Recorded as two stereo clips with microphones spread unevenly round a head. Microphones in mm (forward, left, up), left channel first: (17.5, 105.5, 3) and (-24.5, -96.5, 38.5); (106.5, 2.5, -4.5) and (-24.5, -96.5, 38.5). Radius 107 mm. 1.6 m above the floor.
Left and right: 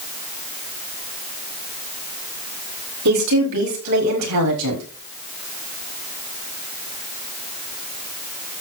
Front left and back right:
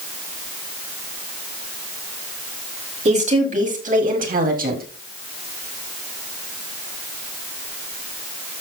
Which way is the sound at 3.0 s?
95° right.